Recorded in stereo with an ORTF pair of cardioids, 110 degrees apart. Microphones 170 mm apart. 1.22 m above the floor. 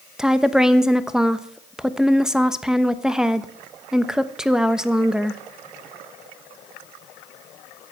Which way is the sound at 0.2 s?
5° right.